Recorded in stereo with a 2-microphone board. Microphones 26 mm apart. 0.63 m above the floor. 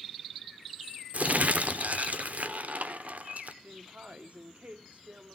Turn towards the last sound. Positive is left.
turn(degrees=-55)  # may be behind; listen again after turning